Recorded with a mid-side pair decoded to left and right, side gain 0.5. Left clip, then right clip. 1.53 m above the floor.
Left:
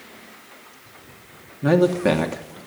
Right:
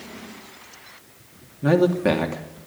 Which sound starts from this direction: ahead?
A man speaking, at 1.6 s.